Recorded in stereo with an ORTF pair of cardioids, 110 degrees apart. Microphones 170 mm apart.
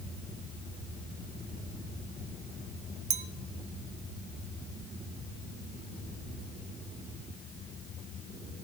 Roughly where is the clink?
Ahead right.